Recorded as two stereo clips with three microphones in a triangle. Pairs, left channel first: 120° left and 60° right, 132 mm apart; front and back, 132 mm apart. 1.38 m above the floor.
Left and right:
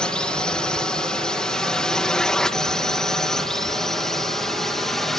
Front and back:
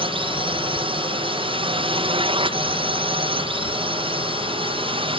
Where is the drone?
160° right; by 5.2 s 155° right.